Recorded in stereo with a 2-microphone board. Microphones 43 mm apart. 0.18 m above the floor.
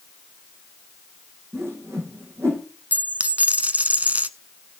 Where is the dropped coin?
35° right (ahead or behind), 0.8 m.